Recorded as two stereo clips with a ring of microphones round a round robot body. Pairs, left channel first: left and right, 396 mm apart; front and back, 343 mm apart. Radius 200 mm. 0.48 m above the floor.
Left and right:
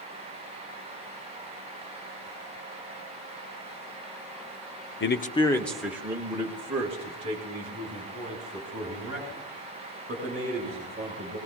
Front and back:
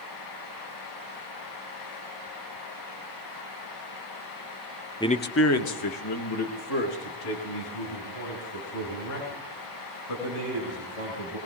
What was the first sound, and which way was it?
A man speaking, 70° left.